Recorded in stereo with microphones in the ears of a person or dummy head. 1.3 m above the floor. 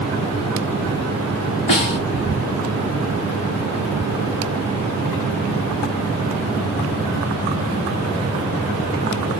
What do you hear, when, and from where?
1.7 s a snare drum: 35° left (ahead or behind), 1.6 m